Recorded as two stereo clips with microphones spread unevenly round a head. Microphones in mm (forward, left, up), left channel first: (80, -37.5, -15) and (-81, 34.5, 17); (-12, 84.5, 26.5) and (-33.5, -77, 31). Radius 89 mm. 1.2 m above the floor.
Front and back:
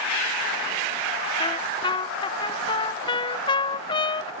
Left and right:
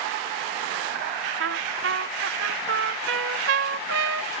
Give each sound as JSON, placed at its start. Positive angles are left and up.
{"t": 1.4, "sound": "a trumpet", "azimuth_deg": -90}